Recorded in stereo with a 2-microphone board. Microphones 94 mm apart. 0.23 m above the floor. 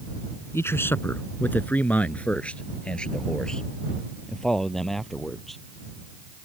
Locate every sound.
0.5 s a man speaking: 30° left (ahead or behind); by 5.6 s 5° left (ahead or behind)